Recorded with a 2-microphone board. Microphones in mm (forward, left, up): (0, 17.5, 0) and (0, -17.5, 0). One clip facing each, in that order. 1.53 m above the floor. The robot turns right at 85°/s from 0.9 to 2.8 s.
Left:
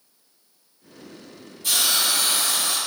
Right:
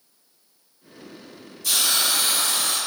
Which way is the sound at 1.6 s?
140° left.